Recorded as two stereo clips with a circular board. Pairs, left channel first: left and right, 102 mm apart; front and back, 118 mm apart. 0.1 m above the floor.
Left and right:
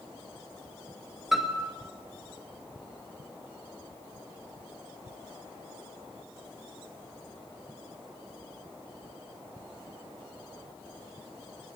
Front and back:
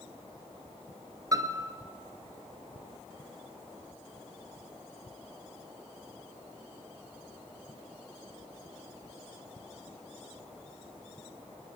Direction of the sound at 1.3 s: 175° right.